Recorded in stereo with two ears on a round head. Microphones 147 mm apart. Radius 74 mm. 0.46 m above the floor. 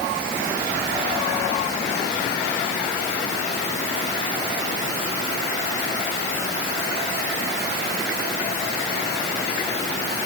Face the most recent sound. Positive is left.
No sound to turn to.